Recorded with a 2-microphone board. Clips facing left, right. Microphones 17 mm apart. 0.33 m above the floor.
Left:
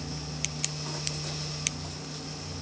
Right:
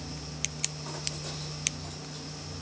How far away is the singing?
I don't hear singing.